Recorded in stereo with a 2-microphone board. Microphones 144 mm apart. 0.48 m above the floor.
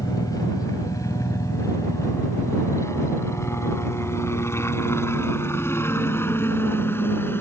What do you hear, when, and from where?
0.0 s a helicopter: 25° left (ahead or behind); by 7.4 s 15° left (ahead or behind)